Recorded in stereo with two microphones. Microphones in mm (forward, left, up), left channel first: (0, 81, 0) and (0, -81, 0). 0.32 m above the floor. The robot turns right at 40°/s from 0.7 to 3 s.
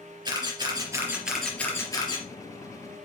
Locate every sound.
0.2 s a camera shutter: 30° right (ahead or behind), 4 m; by 2.2 s 35° left (ahead or behind), 4 m